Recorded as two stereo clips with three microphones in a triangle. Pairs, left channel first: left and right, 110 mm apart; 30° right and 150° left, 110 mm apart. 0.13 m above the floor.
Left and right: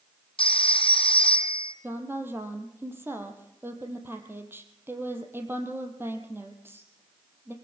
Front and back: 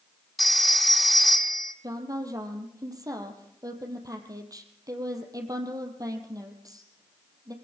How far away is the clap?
No clap in this recording.